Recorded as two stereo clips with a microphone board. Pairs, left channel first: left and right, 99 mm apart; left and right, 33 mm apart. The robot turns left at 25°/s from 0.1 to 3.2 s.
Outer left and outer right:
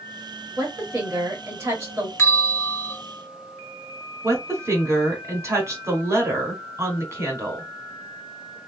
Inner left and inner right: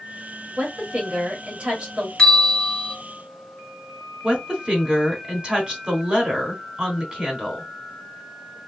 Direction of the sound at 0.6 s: 100° right.